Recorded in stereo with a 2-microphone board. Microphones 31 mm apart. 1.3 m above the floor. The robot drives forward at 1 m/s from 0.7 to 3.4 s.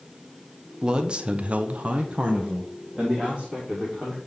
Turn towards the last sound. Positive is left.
turn(degrees=-15)  # may be behind; listen again after turning